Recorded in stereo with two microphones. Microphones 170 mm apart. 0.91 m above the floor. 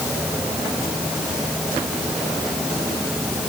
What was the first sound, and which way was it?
Only background noise.